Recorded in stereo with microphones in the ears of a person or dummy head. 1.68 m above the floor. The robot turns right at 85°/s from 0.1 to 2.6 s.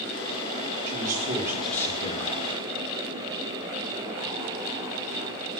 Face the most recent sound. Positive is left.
turn(degrees=80)